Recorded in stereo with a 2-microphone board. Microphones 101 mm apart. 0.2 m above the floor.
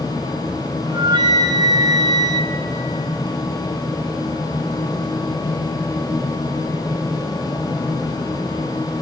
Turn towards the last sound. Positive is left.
turn(degrees=-50)  # may be behind; listen again after turning